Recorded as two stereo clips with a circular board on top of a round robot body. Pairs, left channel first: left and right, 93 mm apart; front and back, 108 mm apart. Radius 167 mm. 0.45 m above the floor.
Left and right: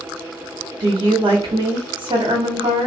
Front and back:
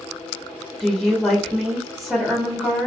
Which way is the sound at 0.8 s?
95° right.